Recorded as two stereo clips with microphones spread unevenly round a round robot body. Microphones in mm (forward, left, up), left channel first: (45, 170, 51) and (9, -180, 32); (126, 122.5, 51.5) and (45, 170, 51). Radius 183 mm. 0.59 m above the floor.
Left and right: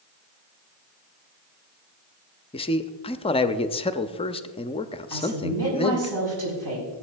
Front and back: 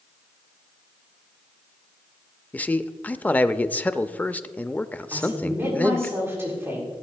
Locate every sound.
2.5 s a man speaking: 25° left, 0.6 m
5.1 s a woman speaking: 130° right, 5.5 m